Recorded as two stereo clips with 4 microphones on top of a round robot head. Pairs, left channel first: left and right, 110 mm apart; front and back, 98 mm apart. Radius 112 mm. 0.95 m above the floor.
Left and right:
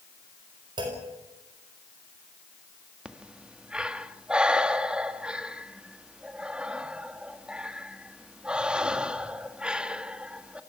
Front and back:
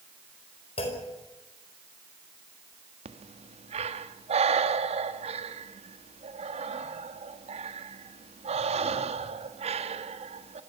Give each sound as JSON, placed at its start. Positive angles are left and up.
{"t": 0.8, "sound": "a clunk", "azimuth_deg": -35, "distance_m": 4.5}
{"t": 3.0, "sound": "breathing", "azimuth_deg": -170, "distance_m": 1.4}